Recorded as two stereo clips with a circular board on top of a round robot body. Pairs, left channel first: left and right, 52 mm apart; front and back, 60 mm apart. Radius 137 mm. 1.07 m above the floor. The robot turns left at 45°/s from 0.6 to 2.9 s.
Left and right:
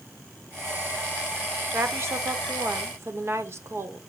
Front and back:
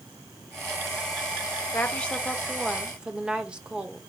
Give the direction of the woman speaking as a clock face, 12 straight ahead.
2 o'clock.